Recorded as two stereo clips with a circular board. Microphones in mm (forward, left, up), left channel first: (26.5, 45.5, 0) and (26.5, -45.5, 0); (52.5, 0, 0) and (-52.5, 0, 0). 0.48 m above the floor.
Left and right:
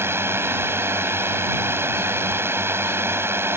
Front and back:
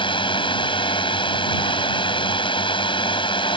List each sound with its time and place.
0.0 s a drone: 30° right